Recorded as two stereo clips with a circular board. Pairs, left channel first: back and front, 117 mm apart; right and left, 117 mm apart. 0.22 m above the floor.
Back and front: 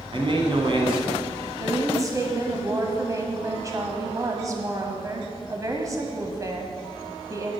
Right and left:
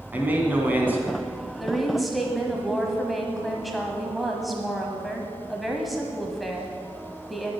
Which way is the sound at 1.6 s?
Straight ahead.